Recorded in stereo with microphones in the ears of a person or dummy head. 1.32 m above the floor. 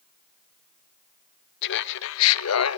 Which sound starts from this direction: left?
Laughter, at 1.6 s.